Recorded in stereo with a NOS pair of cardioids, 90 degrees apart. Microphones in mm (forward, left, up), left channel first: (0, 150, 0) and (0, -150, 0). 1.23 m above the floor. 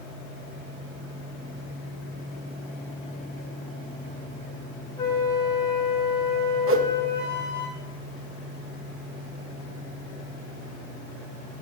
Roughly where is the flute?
Ahead.